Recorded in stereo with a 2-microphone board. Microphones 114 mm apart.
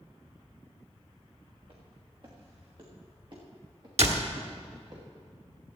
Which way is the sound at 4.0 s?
75° right (ahead or behind).